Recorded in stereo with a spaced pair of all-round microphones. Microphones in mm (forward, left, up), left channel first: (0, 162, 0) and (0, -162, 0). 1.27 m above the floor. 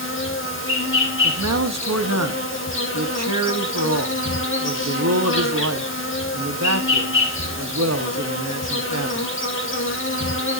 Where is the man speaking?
50° right (ahead or behind), 1.0 m.